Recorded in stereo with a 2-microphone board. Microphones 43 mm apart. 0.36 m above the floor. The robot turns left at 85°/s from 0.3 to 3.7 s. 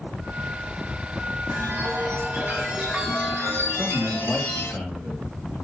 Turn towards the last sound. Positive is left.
turn(degrees=40)  # may be behind; listen again after turning